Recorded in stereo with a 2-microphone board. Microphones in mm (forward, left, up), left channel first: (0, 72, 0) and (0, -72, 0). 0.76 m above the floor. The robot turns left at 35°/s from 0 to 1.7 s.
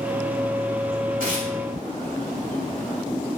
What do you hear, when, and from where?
1.2 s tearing paper: 75° right (ahead or behind), 2 m; by 1.5 s 65° right (ahead or behind), 2 m